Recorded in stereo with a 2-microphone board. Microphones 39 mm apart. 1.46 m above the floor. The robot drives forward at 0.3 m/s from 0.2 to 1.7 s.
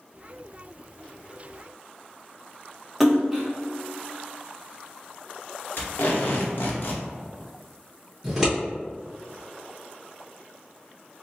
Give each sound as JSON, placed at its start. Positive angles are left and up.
{"t": 3.0, "sound": "a splash", "side_deg": 0, "distance_m": 0.9}
{"t": 5.8, "sound": "tape being pulled", "side_deg": 60, "distance_m": 0.8}
{"t": 8.2, "sound": "scissors", "side_deg": -5, "distance_m": 1.7}